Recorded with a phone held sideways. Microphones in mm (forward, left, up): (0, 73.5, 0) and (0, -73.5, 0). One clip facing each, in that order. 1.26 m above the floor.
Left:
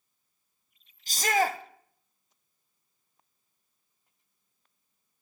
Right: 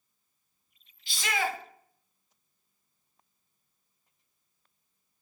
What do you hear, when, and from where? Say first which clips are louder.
1.1 s a shout: left 5 dB; 40° left (ahead or behind), 0.7 m